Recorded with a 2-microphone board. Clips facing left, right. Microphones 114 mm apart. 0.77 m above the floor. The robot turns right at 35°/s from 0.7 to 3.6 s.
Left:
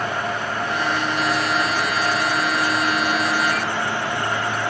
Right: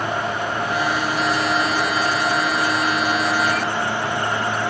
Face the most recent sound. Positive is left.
No sound to turn to.